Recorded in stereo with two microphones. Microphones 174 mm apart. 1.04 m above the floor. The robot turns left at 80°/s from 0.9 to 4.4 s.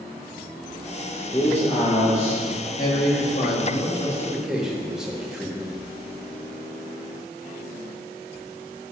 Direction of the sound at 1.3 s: 160° left.